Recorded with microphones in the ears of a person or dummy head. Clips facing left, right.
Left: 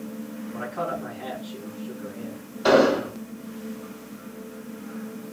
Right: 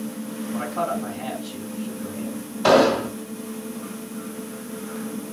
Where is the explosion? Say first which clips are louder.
Right 1 dB; 80° right, 3 m.